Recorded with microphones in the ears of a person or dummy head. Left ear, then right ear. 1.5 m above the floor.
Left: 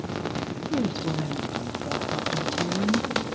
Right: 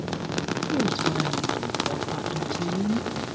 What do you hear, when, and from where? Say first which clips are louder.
0.7 s a woman speaking: right 3 dB; 10° right (ahead or behind), 1.6 m